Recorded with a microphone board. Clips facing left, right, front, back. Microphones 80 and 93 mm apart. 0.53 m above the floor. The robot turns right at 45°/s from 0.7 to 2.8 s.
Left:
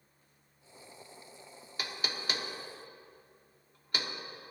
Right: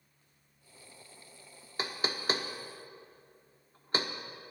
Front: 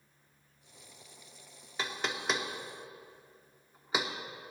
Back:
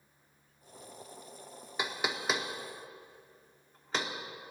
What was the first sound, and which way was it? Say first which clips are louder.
Knocking: right 4 dB, back 1 dB; 120° right.